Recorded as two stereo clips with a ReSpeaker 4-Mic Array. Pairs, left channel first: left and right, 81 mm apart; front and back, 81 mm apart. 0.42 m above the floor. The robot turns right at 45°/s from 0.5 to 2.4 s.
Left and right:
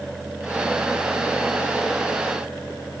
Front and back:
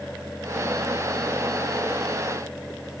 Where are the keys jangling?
No keys jangling in this recording.